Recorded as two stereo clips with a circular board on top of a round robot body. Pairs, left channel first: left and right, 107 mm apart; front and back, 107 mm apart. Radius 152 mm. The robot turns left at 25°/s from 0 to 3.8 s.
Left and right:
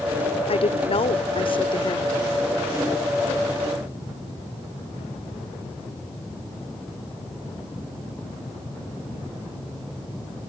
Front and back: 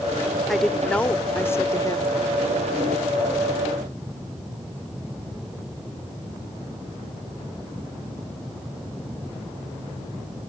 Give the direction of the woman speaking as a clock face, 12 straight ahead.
9 o'clock.